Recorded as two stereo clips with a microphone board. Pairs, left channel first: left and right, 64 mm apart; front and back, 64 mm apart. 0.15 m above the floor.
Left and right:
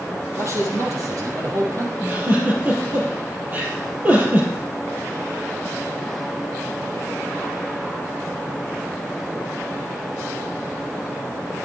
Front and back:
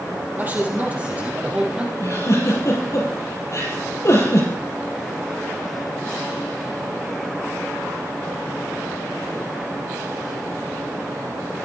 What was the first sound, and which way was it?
A man speaking, 125° right.